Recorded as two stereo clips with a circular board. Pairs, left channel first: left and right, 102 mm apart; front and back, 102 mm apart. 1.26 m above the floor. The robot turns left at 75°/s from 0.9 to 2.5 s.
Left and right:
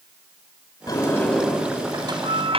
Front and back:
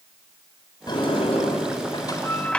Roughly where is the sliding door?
Ahead left.